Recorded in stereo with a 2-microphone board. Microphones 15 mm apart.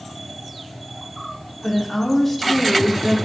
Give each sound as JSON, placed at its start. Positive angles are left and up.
{"t": 1.6, "sound": "a woman speaking", "side_deg": 30, "distance_m": 3.5}